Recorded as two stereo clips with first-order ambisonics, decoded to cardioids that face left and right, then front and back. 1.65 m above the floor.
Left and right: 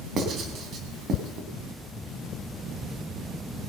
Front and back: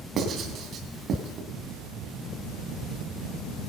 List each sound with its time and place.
0.2 s writing: 135° right, 2.5 m